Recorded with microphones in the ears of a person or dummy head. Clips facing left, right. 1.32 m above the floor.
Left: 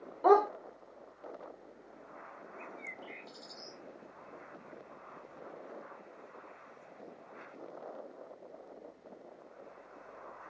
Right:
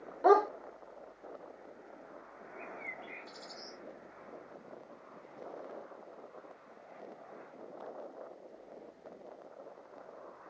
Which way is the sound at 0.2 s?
10° right (ahead or behind).